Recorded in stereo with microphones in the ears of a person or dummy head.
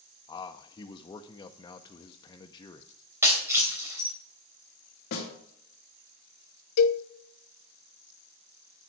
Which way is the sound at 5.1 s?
55° left (ahead or behind).